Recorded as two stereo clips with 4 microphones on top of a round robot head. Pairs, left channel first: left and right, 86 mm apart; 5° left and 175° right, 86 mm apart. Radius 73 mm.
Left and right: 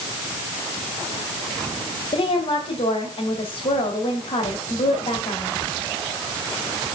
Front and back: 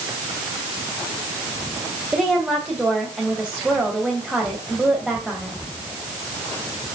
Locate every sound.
2.1 s a woman speaking: 105° left, 3 m